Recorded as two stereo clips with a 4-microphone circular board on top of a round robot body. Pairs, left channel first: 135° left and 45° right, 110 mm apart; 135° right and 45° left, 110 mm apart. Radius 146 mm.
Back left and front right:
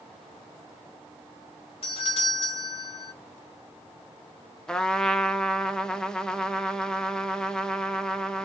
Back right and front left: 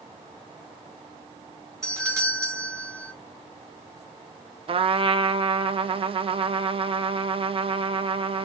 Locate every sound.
1.8 s a doorbell: 110° left, 2 m
4.7 s a trumpet: 50° left, 0.6 m